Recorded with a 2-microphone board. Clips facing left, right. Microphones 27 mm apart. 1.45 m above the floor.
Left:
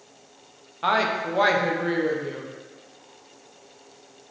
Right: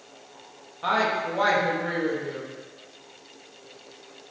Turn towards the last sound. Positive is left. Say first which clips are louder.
# left 1 dB
turn(degrees=20)  # may be behind; listen again after turning